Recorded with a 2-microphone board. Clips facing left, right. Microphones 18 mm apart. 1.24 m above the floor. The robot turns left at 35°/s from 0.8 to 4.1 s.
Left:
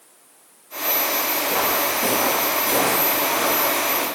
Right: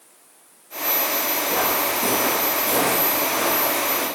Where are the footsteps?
30° left (ahead or behind), 1.3 m; by 4.0 s 25° left (ahead or behind), 3.5 m.